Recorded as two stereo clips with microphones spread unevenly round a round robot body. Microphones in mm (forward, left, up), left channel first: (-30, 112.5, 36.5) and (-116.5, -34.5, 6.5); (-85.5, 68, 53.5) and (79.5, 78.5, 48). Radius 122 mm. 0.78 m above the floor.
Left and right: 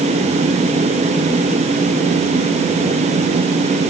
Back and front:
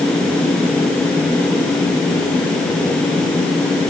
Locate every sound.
Only background noise.